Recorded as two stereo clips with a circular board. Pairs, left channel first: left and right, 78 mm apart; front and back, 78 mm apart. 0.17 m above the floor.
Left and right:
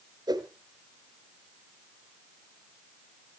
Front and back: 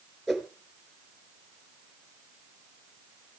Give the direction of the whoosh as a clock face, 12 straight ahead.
3 o'clock.